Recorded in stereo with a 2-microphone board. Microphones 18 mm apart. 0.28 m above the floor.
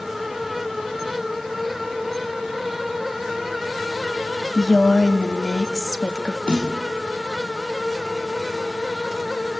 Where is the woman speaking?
35° left (ahead or behind), 1.3 m.